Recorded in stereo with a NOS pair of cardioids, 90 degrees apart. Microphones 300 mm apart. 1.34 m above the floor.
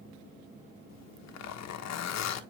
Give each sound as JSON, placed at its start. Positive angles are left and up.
{"t": 0.9, "sound": "a zipper", "azimuth_deg": 60, "distance_m": 1.2}